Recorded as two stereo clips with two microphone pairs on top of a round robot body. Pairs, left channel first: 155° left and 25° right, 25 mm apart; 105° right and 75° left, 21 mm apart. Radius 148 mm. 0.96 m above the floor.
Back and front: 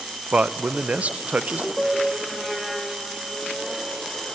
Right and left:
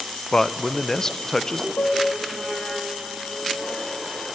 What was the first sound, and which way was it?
A man speaking, 35° right.